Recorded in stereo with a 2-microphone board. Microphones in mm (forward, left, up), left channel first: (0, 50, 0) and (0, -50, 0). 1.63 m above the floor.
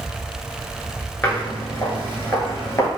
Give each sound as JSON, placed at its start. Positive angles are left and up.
{"t": 1.2, "sound": "footsteps", "side_deg": 15, "distance_m": 1.6}